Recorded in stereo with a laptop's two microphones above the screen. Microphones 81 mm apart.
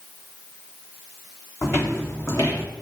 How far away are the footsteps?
About 2.5 m.